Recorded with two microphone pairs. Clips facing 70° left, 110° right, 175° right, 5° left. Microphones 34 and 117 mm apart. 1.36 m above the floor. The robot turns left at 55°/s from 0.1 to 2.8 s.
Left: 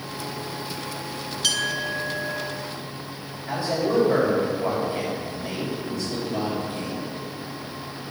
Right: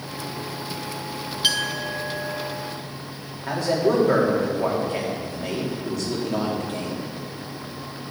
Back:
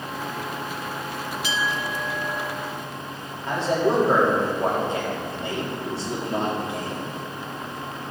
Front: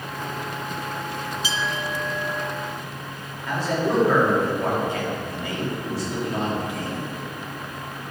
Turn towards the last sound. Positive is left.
turn(degrees=-115)